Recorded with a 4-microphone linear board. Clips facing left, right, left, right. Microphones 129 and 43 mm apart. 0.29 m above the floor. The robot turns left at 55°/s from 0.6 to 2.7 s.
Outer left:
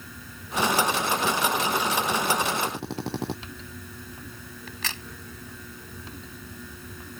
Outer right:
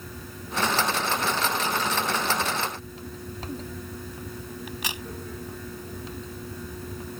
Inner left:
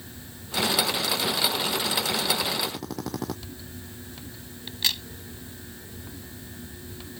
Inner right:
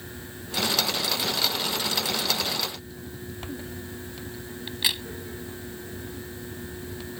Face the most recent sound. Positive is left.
turn(degrees=-15)  # may be behind; listen again after turning